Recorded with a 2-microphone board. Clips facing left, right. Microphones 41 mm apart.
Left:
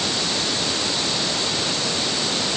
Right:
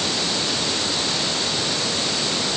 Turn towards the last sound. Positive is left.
No sound to turn to.